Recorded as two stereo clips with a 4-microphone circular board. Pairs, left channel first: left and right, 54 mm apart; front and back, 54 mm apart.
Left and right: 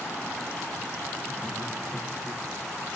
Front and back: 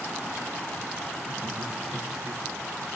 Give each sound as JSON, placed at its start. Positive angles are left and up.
{"t": 1.2, "sound": "laughter", "azimuth_deg": 155, "distance_m": 9.5}